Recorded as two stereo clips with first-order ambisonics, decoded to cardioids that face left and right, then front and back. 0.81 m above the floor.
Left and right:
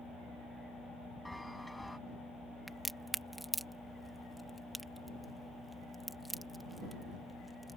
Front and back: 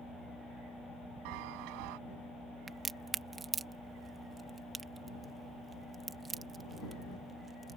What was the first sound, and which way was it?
A chime, straight behind.